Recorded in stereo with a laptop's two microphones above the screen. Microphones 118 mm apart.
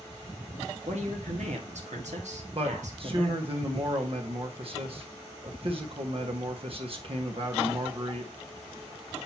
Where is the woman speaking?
80° right, 1.5 m.